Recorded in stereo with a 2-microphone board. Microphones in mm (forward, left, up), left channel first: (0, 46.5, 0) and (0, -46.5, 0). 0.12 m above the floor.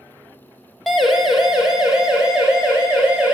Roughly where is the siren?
Centre.